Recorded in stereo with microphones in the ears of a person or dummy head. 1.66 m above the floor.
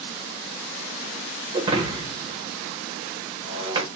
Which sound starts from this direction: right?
Breaking glass, at 1.5 s.